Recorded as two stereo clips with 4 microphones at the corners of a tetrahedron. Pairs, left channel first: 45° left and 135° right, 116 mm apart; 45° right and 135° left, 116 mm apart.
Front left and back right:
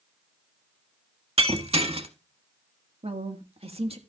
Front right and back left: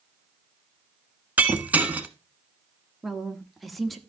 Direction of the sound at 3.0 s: 135° right.